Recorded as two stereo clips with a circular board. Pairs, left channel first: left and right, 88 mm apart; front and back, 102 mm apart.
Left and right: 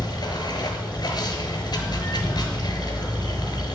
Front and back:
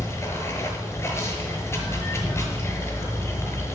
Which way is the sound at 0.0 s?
60° left.